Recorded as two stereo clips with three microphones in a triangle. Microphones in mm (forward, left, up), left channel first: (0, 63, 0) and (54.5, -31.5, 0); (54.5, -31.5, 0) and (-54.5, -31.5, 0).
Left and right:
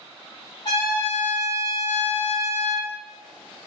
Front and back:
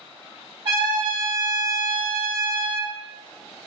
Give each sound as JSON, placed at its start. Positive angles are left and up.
{"t": 0.7, "sound": "a trumpet", "azimuth_deg": 160, "distance_m": 1.8}